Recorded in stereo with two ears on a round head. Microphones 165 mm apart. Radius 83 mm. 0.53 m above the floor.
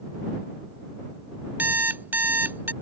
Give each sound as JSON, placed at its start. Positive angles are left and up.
{"t": 1.6, "sound": "an alarm clock", "side_deg": -10}